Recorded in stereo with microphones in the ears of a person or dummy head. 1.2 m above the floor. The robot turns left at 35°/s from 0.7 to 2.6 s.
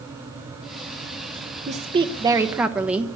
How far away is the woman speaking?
About 1.0 m.